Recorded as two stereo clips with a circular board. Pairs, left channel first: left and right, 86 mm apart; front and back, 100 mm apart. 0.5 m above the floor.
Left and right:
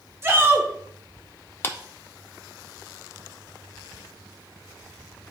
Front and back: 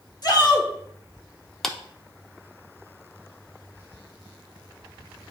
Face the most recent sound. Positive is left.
turn(degrees=80)